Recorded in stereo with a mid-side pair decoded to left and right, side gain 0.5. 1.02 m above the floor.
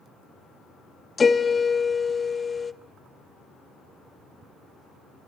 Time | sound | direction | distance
1.2 | a piano | 30° left | 1.0 m